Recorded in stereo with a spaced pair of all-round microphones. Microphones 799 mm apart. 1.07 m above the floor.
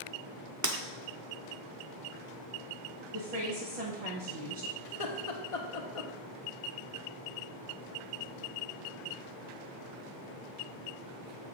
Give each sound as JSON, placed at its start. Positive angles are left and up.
{"t": 0.6, "sound": "breaking glass", "side_deg": -25, "distance_m": 0.6}
{"t": 3.1, "sound": "a woman speaking", "side_deg": -55, "distance_m": 0.9}
{"t": 4.8, "sound": "laughter", "side_deg": 45, "distance_m": 0.9}